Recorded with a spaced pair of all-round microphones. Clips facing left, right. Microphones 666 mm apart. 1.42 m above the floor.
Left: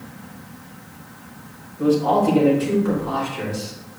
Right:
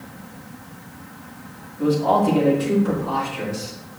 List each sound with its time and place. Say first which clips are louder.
1.8 s a man speaking: left 1 dB; 20° right (ahead or behind), 5 m; by 3.7 s 15° right (ahead or behind), 5.5 m